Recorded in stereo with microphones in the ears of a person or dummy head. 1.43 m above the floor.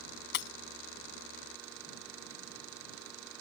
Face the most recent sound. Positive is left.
turn(degrees=60)  # may be behind; listen again after turning